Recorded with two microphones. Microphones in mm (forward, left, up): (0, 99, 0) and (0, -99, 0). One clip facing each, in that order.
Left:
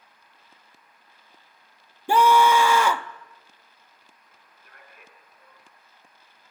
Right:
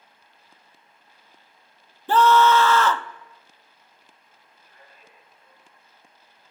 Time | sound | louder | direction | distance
2.1 | a scream | right 1 dB | 15° left (ahead or behind) | 0.7 m
4.3 | a man speaking | left 1 dB | 70° left (ahead or behind) | 6 m